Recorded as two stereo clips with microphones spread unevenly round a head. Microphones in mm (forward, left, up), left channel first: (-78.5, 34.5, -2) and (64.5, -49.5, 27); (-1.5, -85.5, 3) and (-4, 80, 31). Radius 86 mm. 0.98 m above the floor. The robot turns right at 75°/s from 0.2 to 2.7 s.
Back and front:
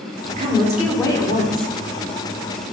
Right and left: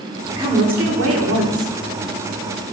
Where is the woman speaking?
20° left, 2.5 m; by 1.7 s 125° left, 2.5 m.